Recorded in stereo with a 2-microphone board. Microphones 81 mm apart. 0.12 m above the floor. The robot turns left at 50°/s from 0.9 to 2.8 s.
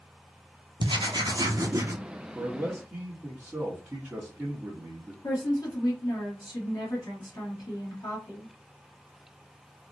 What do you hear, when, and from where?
0.8 s writing: 95° right, 0.8 m; by 2.0 s 150° right, 0.8 m
2.4 s a man speaking: centre (ahead or behind), 1.4 m; by 5.1 s 15° right (ahead or behind), 1.4 m
5.2 s a woman speaking: 50° left (ahead or behind), 2.5 m